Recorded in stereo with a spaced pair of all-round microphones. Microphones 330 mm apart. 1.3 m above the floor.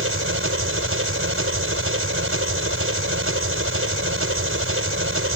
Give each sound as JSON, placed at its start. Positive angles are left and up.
{"t": 0.0, "sound": "an engine running", "side_deg": -40}